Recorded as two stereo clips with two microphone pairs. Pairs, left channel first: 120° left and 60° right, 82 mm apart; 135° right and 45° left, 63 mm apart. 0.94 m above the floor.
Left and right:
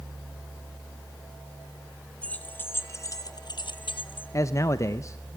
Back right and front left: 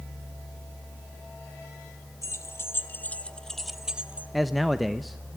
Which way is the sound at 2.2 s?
170° right.